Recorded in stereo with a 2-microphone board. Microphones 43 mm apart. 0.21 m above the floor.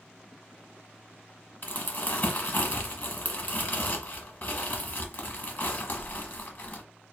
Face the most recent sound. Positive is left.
turn(degrees=40)  # may be behind; listen again after turning